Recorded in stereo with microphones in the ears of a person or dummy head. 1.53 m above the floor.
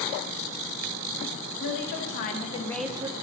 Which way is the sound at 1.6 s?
60° left (ahead or behind).